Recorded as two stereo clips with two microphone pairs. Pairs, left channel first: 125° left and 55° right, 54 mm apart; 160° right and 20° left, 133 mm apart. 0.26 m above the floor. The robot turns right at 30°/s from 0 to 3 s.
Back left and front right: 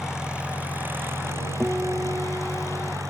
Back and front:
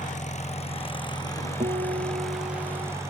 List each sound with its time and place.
0.0 s an engine running: 140° right; by 3.1 s 50° right
1.6 s a guitar: 5° left; by 2.9 s 45° left